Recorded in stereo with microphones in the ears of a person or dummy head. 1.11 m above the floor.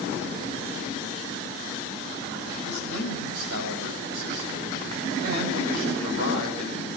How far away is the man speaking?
About 7 m.